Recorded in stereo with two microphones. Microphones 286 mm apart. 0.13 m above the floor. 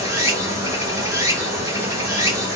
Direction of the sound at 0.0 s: 10° right (ahead or behind).